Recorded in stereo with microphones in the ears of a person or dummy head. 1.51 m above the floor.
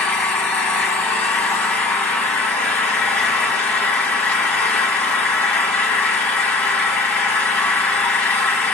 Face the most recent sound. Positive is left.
turn(degrees=10)  # may be behind; listen again after turning